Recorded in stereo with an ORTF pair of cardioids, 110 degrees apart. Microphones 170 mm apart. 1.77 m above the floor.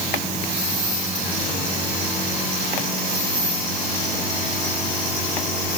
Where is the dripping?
No dripping in this recording.